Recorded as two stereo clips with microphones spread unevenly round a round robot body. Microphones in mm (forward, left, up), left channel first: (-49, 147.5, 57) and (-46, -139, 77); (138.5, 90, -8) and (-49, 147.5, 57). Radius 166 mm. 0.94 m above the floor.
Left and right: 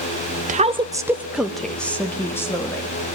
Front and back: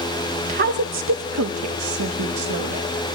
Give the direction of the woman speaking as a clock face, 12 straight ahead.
5 o'clock.